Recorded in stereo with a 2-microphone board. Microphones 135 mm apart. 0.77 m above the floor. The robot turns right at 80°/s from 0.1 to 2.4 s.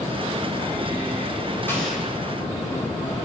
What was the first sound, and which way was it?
An explosion, 165° left.